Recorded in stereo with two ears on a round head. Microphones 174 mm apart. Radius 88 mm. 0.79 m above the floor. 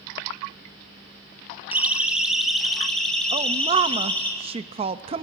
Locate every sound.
1.7 s a siren: 10° right (ahead or behind), 3.5 m; by 4.3 s 10° left (ahead or behind), 6.5 m
3.3 s a woman speaking: 30° right (ahead or behind), 0.6 m